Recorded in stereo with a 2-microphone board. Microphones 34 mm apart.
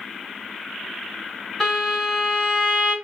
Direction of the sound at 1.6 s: 5° left (ahead or behind).